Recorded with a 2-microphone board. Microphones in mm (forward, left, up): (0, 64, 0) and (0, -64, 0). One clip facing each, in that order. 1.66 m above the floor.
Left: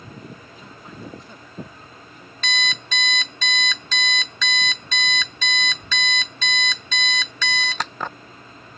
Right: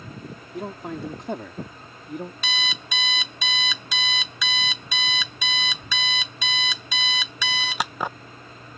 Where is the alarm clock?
10° right (ahead or behind).